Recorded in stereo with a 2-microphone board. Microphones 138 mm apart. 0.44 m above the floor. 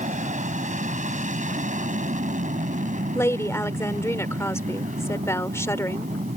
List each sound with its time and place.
0.0 s an aircraft: 65° right (ahead or behind)
3.1 s a woman speaking: 20° left (ahead or behind)